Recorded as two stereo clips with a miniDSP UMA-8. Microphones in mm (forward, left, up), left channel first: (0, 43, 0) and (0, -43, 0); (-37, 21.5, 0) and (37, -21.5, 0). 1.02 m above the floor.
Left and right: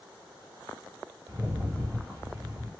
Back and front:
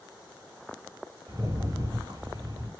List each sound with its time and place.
1.3 s a rattle: 40° right, 2.5 m